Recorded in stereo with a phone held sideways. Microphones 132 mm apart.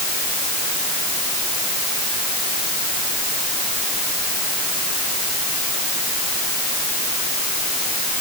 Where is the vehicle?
No vehicle in this recording.